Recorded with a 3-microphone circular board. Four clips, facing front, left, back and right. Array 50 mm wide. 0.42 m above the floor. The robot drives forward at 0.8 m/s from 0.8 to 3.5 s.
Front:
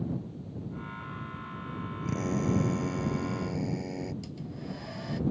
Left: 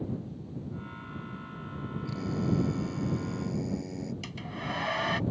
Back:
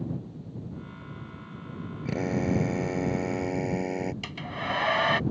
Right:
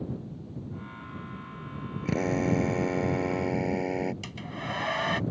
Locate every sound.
2.0 s a drill: 110° right; by 4.1 s 125° right
4.2 s a hair dryer: 175° right